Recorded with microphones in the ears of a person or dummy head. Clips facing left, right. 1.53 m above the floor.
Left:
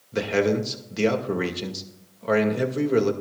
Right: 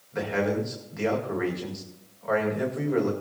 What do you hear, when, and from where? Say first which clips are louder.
0.1 s a man speaking: left 4 dB; 45° left (ahead or behind), 2 m